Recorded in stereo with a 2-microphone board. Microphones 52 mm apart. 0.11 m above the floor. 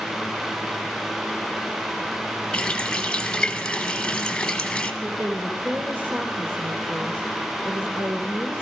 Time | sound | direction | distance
2.5 | a running tap | 10° left (ahead or behind) | 1.5 m
5.0 | a woman speaking | 50° right (ahead or behind) | 2 m